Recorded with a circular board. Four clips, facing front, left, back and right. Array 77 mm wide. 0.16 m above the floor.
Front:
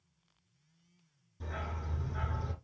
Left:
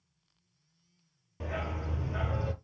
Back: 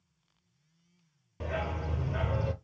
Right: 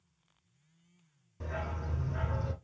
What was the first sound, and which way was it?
A dog barking, 150° left.